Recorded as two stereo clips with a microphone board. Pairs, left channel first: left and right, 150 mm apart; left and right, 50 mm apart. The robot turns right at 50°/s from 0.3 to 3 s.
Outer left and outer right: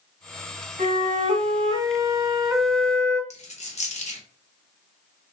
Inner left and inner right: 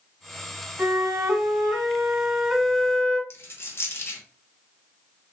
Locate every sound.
0.8 s a flute: 90° right, 1.1 m; by 3.2 s 20° left, 1.1 m
3.3 s a dropped coin: 50° left (ahead or behind), 0.8 m